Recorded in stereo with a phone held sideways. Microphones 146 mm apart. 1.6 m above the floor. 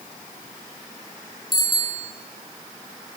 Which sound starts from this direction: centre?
A bicycle bell, at 1.5 s.